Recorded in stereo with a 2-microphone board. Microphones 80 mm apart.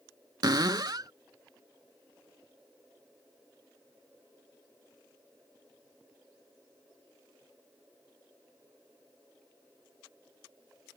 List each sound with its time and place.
0.4 s a cupboard door: 50° right (ahead or behind)